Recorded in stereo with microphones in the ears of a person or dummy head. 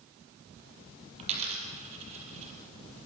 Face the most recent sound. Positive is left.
turn(degrees=-40)  # may be behind; listen again after turning